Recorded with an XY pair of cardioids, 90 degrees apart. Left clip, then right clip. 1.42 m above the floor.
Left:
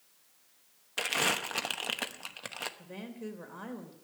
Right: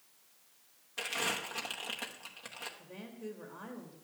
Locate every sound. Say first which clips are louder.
1.0 s crumpling: left 5 dB; 60° left, 0.9 m
2.8 s a woman speaking: left 3 dB; 50° left, 3 m